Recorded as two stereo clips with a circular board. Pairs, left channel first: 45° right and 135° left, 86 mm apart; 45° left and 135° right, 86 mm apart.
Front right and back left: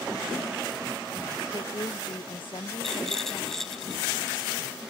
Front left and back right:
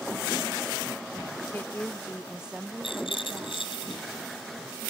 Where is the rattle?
40° left.